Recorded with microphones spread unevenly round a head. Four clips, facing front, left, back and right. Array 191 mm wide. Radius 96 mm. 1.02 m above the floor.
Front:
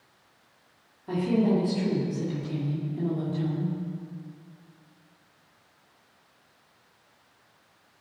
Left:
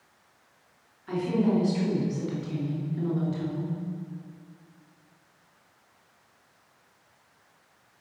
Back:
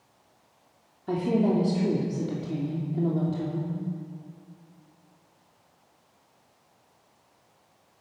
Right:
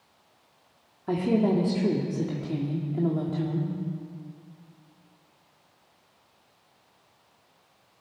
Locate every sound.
1.1 s a woman speaking: 120° right, 3 m